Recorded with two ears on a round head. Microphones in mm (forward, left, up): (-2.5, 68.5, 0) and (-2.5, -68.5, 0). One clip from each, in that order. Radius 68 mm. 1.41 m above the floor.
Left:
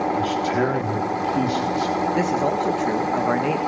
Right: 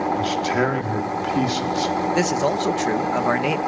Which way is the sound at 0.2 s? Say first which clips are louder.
Even; 25° right (ahead or behind).